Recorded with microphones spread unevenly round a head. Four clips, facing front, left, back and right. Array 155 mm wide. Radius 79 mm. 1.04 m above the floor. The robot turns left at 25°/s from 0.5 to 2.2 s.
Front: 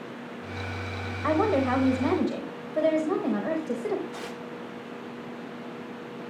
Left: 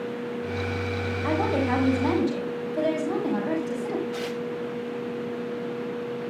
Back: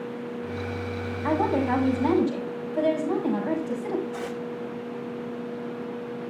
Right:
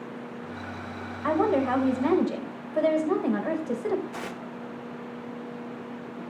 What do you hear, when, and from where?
1.2 s a woman speaking: 25° right, 4.5 m; by 4.0 s 50° right, 4.5 m
4.1 s tearing paper: 100° right, 0.7 m